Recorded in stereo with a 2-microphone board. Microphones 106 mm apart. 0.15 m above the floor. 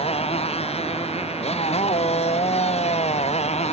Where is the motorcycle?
70° left (ahead or behind); by 3.7 s 85° left.